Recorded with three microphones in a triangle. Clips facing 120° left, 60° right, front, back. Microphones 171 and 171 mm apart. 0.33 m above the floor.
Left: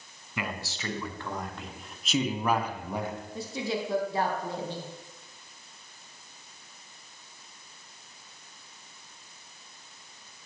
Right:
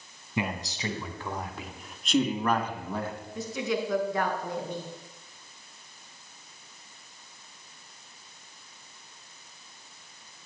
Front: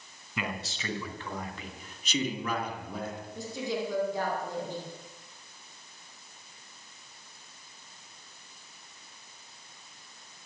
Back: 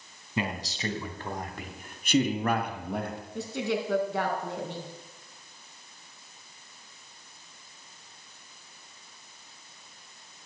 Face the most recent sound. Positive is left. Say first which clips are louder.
# right 3 dB, back 3 dB
turn(degrees=180)